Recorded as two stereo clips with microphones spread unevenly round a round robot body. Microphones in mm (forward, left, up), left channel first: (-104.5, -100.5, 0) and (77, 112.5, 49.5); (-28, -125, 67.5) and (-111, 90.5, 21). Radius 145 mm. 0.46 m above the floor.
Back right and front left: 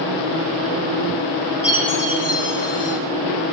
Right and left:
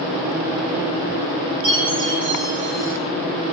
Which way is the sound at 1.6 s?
135° left.